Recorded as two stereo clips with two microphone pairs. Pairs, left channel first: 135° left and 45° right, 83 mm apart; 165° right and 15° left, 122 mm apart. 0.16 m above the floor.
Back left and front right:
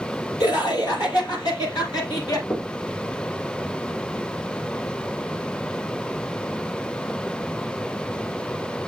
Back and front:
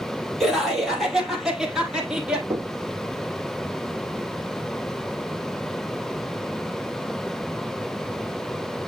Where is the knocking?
85° left, 3 m.